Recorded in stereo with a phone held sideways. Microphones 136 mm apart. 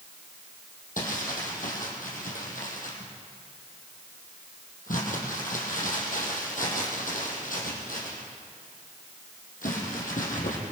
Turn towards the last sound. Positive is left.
turn(degrees=75)  # may be behind; listen again after turning